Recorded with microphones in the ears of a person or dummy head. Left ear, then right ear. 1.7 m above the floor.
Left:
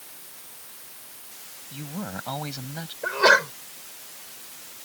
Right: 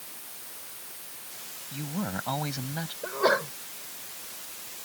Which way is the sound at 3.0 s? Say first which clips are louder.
Left 7 dB; 70° left (ahead or behind).